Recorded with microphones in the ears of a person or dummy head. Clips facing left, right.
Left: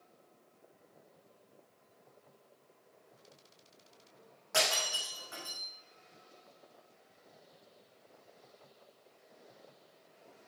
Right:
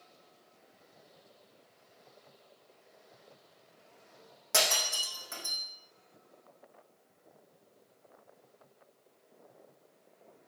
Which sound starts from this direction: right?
Breaking glass, at 4.5 s.